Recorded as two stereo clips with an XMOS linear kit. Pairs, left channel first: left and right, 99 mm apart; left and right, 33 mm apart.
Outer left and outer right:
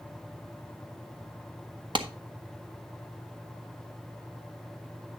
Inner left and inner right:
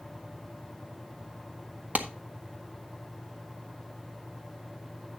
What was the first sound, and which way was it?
A clap, 50° right (ahead or behind).